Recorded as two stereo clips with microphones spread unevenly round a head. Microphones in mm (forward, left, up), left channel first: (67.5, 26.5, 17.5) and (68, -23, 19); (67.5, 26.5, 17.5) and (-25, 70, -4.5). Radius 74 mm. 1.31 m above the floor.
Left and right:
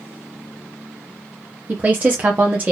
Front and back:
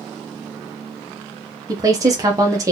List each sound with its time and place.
1.7 s a woman speaking: 150° right, 0.8 m